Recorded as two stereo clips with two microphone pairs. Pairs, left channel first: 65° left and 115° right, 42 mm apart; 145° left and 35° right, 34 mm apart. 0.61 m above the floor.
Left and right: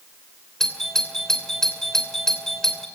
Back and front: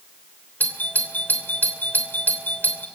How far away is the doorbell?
About 2.5 m.